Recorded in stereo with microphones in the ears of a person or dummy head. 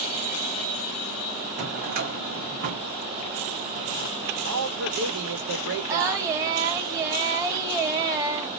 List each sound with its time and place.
1.6 s a drawer: 45° right (ahead or behind), 1.2 m
4.5 s a man speaking: 75° right (ahead or behind), 1.3 m
5.9 s singing: 20° right (ahead or behind), 1.0 m